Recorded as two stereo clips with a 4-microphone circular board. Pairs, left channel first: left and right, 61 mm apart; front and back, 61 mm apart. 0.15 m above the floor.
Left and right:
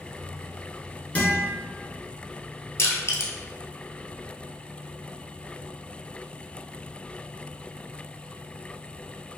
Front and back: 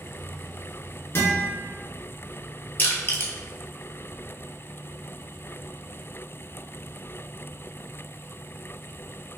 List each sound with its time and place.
1.1 s a guitar: 35° left, 1.5 m
2.8 s crushing: 55° left, 0.9 m